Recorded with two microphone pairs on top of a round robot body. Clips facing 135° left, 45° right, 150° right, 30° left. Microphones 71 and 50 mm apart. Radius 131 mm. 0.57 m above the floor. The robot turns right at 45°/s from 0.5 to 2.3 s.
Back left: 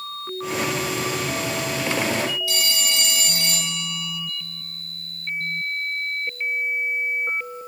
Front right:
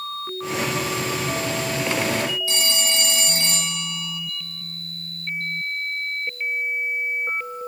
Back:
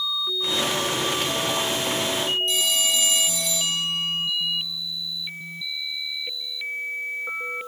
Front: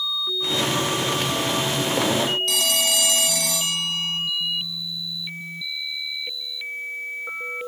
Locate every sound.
2.5 s a phone ringing: 20° left, 2.5 m